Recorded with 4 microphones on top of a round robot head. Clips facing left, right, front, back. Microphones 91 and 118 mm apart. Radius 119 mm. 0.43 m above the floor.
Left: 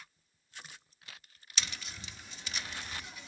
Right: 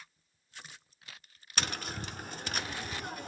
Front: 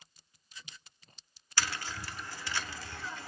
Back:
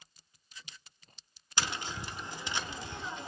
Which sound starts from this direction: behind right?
Tapping, at 1.6 s.